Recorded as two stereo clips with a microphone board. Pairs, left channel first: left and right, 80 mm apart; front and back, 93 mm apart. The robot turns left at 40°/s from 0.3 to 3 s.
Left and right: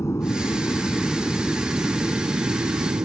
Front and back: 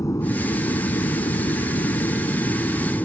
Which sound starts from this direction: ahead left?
An aircraft, at 0.0 s.